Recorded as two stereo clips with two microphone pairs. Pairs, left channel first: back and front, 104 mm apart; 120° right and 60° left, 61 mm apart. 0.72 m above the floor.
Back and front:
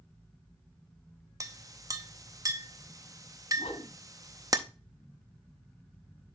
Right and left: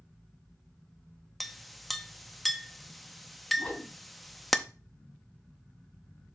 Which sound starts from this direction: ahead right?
A clink, at 1.4 s.